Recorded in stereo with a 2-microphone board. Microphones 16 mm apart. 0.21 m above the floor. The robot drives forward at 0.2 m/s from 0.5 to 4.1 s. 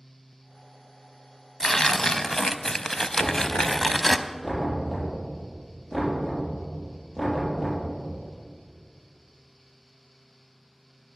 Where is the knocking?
30° right (ahead or behind), 5.5 m.